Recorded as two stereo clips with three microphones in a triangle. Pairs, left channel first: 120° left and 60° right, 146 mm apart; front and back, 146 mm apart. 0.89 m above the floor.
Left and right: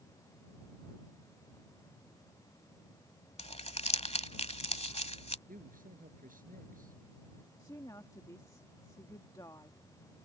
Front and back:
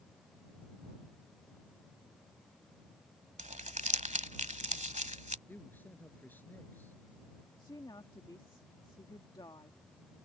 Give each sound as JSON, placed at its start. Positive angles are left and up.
{"t": 3.4, "sound": "crumpling", "azimuth_deg": 155}
{"t": 5.5, "sound": "a man speaking", "azimuth_deg": -75}
{"t": 7.6, "sound": "a woman speaking", "azimuth_deg": 55}